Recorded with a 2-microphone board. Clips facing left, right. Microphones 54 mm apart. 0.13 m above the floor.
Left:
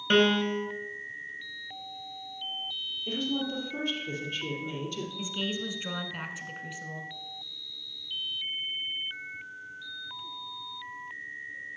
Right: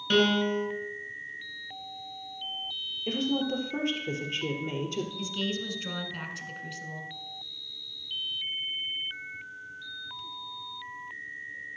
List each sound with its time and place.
0.1 s a piano: 35° left (ahead or behind), 1.4 m
3.1 s a woman speaking: 65° right (ahead or behind), 3 m
5.2 s a woman speaking: 15° left (ahead or behind), 1.1 m